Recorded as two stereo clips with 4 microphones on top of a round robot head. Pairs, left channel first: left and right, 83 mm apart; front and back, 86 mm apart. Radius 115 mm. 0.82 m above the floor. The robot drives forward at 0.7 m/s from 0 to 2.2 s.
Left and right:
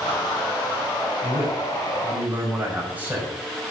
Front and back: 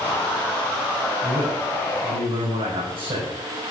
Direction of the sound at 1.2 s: 160° right.